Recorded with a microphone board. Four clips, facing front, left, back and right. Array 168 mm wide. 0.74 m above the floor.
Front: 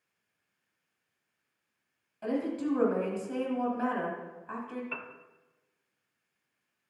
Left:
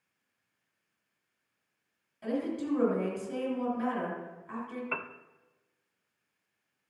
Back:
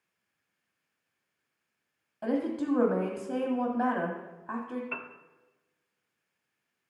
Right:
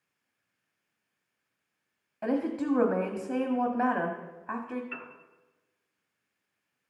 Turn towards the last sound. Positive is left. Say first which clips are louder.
# left 5 dB, back 1 dB
turn(degrees=90)